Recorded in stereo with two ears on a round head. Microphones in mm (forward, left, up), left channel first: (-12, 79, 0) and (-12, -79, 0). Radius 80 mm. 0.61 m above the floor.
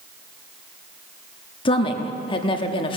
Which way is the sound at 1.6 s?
30° left (ahead or behind).